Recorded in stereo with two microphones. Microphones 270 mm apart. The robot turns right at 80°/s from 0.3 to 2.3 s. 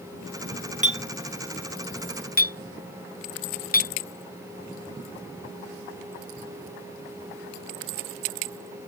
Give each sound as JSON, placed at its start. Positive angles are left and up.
{"t": 0.8, "sound": "a clink", "side_deg": -30}